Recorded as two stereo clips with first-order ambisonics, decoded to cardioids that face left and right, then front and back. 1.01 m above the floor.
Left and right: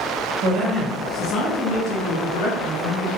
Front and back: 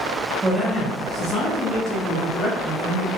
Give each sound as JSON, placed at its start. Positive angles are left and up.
{"t": 0.4, "sound": "a man speaking", "azimuth_deg": -90, "distance_m": 0.7}